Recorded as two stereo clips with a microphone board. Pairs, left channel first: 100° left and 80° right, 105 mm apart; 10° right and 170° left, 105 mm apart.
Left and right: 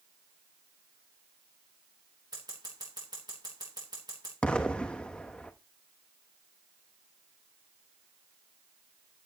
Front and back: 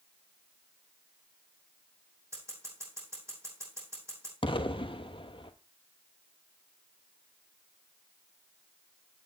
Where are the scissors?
125° right, 4 m.